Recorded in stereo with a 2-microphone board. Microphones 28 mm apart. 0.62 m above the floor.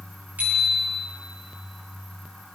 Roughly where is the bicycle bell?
Right.